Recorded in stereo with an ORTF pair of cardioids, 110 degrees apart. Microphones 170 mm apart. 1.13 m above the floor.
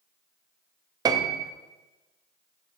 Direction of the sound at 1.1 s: 25° right.